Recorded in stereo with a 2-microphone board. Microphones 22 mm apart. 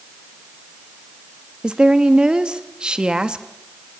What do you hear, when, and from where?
1.6 s a woman speaking: 35° right (ahead or behind), 1.0 m